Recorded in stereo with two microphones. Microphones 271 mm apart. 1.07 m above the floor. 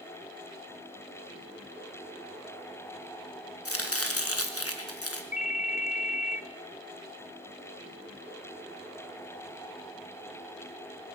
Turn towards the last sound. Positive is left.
turn(degrees=25)  # may be behind; listen again after turning